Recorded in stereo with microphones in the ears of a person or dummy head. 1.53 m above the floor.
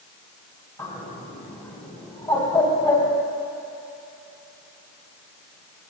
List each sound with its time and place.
0.8 s a bird: 20° left (ahead or behind), 2.5 m